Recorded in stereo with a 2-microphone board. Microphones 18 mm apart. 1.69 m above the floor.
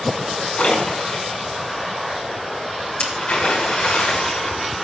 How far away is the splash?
About 6 m.